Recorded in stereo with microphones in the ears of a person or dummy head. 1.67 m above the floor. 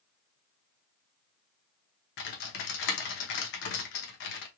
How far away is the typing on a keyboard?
About 0.7 m.